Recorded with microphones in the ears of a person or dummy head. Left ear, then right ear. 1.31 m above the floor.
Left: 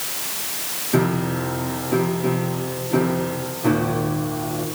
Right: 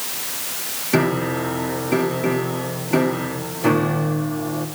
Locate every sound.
0.9 s a piano: 80° right, 3 m